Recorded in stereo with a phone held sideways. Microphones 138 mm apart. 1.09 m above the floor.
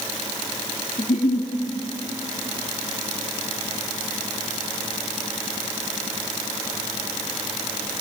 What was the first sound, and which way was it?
A giggle, 70° left (ahead or behind).